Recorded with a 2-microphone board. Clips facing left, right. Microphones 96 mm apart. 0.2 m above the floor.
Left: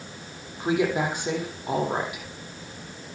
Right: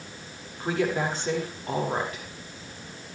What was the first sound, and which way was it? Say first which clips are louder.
A woman speaking: left 2 dB; 15° left (ahead or behind).